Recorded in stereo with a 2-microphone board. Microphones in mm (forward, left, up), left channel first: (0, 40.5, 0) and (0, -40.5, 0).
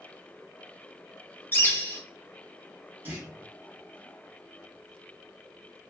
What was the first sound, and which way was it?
A bird, 25° left (ahead or behind).